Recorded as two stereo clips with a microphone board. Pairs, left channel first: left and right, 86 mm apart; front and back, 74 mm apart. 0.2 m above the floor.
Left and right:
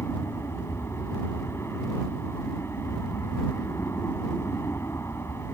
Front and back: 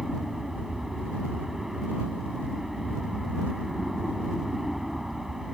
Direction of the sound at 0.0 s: 100° left.